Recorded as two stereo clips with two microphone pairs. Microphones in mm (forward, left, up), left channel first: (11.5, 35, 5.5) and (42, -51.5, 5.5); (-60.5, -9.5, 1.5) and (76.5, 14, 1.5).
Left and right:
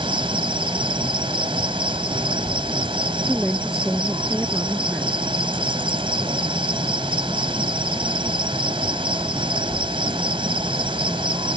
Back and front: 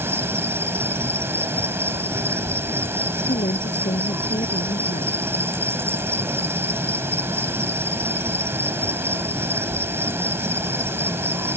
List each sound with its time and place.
0.0 s an insect: 65° right
3.3 s a woman speaking: 150° right